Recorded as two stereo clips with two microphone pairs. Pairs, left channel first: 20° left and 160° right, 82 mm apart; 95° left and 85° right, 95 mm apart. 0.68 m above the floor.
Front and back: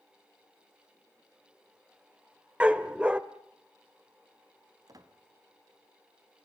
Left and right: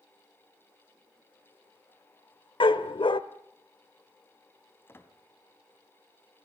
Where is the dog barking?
120° left, 1.0 m.